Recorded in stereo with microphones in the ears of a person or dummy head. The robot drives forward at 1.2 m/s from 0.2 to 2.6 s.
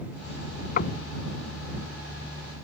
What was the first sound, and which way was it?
Knocking, 50° left (ahead or behind).